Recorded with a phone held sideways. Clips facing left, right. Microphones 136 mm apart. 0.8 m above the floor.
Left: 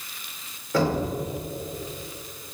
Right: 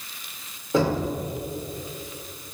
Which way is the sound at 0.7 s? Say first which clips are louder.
Right 1 dB; 25° right (ahead or behind).